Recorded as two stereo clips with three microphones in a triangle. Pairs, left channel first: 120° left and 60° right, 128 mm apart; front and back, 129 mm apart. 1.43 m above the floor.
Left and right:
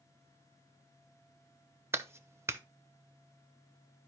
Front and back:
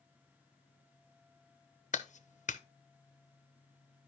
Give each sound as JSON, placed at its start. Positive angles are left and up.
{"t": 1.9, "sound": "a clap", "azimuth_deg": 10, "distance_m": 0.8}